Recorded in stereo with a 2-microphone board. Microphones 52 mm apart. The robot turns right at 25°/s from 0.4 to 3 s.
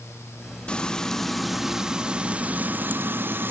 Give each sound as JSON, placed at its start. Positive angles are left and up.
{"t": 0.7, "sound": "frying", "azimuth_deg": 160, "distance_m": 0.8}